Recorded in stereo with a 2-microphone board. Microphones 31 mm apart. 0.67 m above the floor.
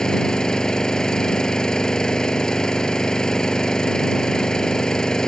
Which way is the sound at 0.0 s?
25° left (ahead or behind).